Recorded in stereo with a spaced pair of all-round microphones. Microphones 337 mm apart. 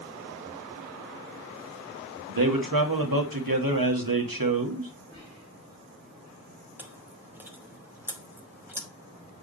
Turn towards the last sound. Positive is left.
turn(degrees=-5)  # may be behind; listen again after turning